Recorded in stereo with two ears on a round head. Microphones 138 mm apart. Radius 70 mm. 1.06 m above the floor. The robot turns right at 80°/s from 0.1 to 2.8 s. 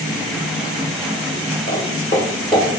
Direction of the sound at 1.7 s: 40° left (ahead or behind).